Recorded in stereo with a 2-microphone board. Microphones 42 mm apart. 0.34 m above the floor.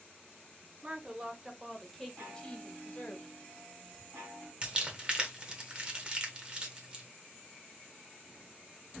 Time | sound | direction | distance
0.8 | a woman speaking | 30° right (ahead or behind) | 1.1 m
2.2 | a chime | 60° right (ahead or behind) | 2.5 m
4.6 | crumpling | 25° right (ahead or behind) | 1.5 m